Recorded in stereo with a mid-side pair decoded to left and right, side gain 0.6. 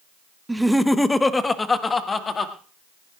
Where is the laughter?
10° right, 0.8 m; by 2.5 s 30° left, 2.5 m.